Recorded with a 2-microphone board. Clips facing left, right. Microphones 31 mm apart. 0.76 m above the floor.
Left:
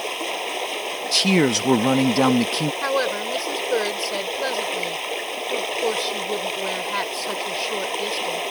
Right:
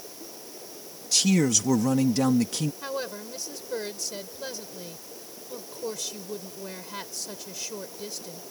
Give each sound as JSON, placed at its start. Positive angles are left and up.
{"t": 0.0, "sound": "running water", "side_deg": 65}
{"t": 1.1, "sound": "a man speaking", "side_deg": 35}
{"t": 2.8, "sound": "a woman speaking", "side_deg": 35}